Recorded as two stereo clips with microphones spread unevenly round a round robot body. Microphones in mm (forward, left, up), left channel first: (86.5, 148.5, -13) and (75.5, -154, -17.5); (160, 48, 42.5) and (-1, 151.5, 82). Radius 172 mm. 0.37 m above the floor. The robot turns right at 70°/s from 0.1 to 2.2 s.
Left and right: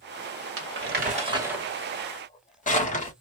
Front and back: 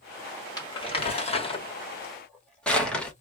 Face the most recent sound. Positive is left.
turn(degrees=35)